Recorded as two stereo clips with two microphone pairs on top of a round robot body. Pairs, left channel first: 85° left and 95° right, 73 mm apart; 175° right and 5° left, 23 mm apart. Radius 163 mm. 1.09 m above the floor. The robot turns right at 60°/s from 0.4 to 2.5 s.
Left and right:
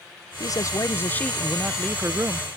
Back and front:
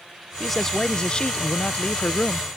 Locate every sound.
0.4 s a man speaking: 100° left; by 2.5 s 135° right